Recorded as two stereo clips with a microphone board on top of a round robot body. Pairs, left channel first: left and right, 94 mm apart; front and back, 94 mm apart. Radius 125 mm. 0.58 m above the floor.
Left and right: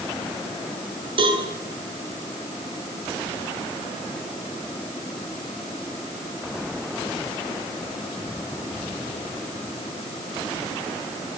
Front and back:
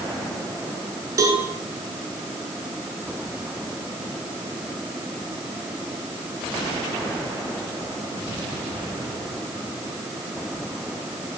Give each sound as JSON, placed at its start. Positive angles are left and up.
{"t": 1.2, "sound": "a cowbell", "azimuth_deg": -120, "distance_m": 8.5}